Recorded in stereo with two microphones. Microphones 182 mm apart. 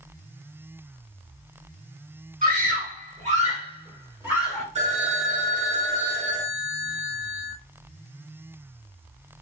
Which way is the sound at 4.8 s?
35° right (ahead or behind).